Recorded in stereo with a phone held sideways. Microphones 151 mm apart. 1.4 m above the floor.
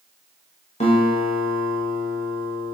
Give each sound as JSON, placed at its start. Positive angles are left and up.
{"t": 0.8, "sound": "a guitar", "side_deg": 45, "distance_m": 0.8}